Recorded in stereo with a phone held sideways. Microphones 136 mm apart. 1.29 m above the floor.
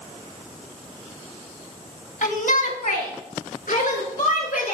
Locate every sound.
2.2 s a shout: 85° left, 1.3 m; by 4.7 s 80° left, 4 m